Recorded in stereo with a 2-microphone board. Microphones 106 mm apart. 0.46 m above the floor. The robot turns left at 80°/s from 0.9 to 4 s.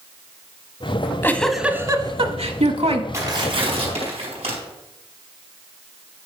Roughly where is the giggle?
Ahead left.